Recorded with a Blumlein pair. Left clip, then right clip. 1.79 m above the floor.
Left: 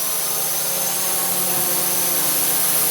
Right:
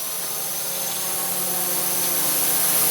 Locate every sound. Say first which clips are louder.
0.0 s a drone: left 5 dB; 20° left; by 2.9 s 5° left